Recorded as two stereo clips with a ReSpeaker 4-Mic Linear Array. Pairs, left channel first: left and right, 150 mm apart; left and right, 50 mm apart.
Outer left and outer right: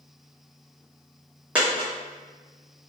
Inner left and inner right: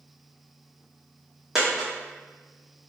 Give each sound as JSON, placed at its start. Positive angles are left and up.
{"t": 1.6, "sound": "a dropped coin", "side_deg": -10, "distance_m": 1.1}